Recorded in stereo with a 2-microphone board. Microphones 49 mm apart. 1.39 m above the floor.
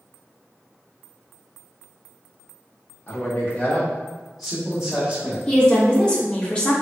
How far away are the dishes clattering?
I don't hear dishes clattering.